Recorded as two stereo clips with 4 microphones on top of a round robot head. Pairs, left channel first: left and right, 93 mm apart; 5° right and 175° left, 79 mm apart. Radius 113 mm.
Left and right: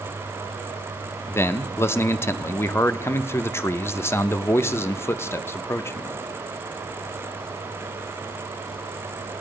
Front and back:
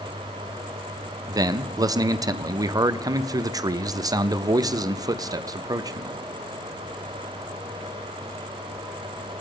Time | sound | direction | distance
1.3 | a man speaking | 150° left | 0.9 m